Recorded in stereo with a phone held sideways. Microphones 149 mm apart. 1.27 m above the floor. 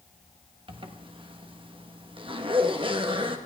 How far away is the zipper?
About 1.1 m.